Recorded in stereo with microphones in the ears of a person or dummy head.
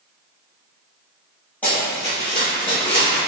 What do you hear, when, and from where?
1.6 s running footsteps: 10° left (ahead or behind), 1.2 m; by 3.2 s 35° left (ahead or behind), 1.6 m